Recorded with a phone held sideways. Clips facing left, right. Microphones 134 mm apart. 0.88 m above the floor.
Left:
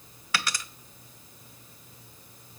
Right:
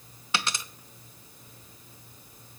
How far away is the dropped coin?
About 0.6 m.